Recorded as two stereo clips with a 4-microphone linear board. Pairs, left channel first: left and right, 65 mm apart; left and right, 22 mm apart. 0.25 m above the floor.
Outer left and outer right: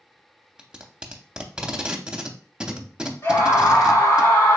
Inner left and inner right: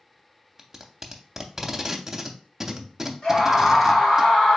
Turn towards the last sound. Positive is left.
turn(degrees=40)  # may be behind; listen again after turning